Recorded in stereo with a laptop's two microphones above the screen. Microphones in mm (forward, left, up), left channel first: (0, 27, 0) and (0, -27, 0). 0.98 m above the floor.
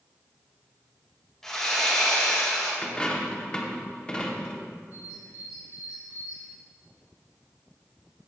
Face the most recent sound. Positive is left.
turn(degrees=70)  # may be behind; listen again after turning